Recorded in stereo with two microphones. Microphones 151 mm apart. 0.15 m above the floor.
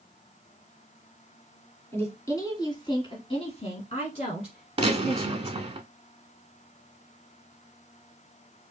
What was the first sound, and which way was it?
A woman speaking, 15° left (ahead or behind).